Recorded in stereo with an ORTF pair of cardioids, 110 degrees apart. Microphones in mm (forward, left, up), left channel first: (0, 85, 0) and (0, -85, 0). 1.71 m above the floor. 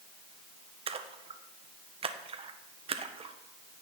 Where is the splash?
35° right, 1.3 m.